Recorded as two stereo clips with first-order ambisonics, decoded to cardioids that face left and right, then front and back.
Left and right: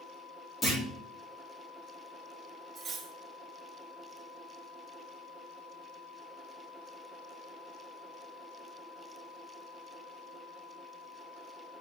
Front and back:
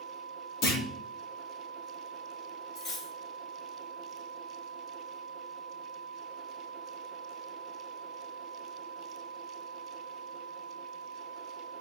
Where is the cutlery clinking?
30° right, 1.3 m.